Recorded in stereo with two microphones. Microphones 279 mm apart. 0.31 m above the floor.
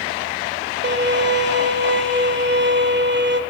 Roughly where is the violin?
Right.